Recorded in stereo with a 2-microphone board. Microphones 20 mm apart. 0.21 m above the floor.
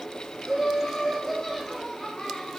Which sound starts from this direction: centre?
Laughter, at 0.4 s.